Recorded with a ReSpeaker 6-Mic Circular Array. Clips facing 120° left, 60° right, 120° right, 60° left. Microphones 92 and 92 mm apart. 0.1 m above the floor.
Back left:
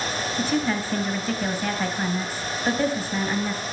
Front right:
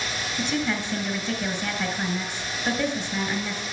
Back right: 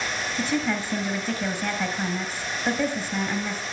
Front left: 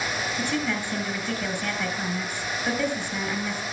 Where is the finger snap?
I don't hear a finger snap.